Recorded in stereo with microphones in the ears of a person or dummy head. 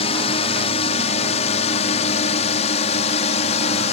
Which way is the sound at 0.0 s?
35° left (ahead or behind).